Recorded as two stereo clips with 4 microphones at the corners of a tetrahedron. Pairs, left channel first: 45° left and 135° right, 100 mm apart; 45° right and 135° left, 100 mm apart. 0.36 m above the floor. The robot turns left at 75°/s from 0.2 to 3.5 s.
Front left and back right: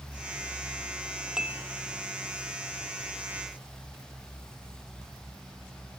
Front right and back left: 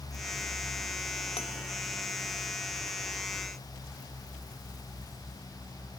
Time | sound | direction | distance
1.4 | dishes clattering | 50° right | ?